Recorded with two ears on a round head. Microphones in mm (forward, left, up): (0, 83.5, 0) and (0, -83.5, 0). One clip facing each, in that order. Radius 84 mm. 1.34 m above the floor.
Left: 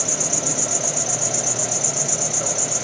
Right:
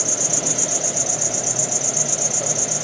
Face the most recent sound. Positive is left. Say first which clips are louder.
# even
turn(degrees=-5)  # may be behind; listen again after turning